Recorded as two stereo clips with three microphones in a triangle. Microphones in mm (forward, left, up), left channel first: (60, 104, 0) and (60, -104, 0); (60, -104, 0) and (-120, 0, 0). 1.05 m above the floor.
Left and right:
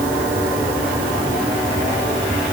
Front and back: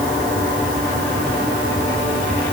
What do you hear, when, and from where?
Only background noise.